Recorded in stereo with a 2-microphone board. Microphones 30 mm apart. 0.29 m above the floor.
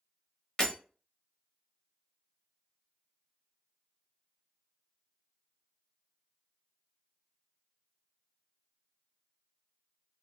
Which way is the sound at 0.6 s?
30° left (ahead or behind).